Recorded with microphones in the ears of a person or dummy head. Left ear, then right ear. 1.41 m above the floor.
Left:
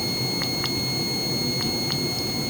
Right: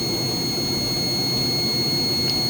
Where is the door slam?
No door slam in this recording.